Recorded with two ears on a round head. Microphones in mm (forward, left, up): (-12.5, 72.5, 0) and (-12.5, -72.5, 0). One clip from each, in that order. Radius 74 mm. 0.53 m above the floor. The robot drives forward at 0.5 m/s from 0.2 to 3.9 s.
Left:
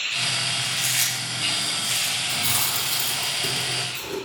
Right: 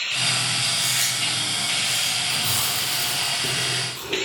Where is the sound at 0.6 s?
20° left (ahead or behind), 5.5 m.